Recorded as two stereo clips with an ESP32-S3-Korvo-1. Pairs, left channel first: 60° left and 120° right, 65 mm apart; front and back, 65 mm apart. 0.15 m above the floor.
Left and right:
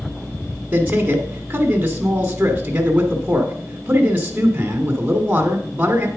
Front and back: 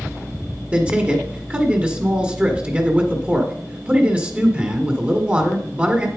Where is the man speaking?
150° right, 1.5 m.